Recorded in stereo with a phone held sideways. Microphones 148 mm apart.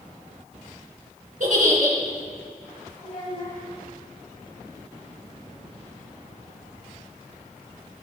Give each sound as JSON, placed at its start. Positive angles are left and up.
{"t": 1.4, "sound": "a giggle", "side_deg": -60, "distance_m": 3.5}
{"t": 3.0, "sound": "a child speaking", "side_deg": 40, "distance_m": 5.5}